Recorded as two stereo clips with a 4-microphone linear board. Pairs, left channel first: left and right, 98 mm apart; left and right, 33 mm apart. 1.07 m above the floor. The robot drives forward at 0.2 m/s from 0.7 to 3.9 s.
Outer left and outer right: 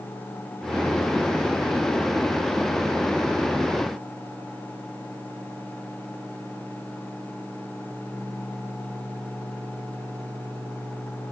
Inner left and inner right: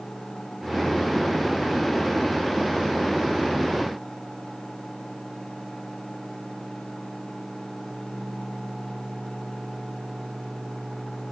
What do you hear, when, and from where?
Only background noise.